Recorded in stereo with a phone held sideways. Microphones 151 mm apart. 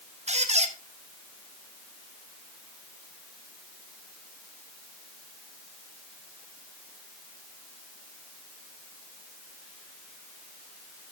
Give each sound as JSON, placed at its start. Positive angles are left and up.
{"t": 0.3, "sound": "a squeak", "side_deg": -45, "distance_m": 1.0}